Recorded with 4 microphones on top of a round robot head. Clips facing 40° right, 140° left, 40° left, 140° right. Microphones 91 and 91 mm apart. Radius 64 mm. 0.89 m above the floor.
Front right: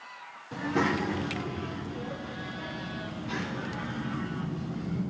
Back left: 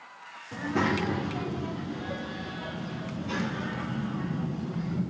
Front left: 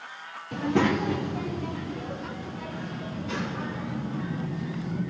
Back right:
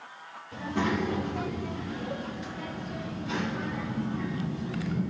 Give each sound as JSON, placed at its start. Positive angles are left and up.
{"t": 0.5, "sound": "a child speaking", "azimuth_deg": 35, "distance_m": 1.0}